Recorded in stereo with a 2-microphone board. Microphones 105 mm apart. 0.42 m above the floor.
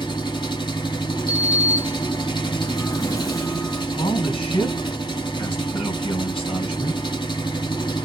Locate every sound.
0.0 s an engine running: 50° left (ahead or behind), 0.8 m
1.3 s a sliding door: 35° left (ahead or behind), 0.7 m
4.0 s a man speaking: 65° left (ahead or behind), 2 m